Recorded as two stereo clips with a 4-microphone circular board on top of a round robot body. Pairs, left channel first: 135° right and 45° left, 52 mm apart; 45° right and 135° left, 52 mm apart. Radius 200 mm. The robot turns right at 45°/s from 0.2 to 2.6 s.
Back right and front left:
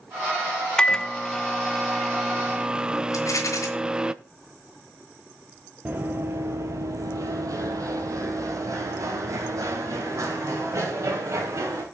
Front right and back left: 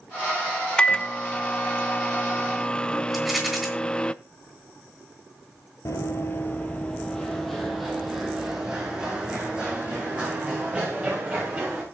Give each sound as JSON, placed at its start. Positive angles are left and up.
{"t": 0.8, "sound": "a microwave", "azimuth_deg": -85, "distance_m": 0.7}
{"t": 3.1, "sound": "a rattle", "azimuth_deg": -135, "distance_m": 2.5}
{"t": 5.8, "sound": "running footsteps", "azimuth_deg": -15, "distance_m": 0.7}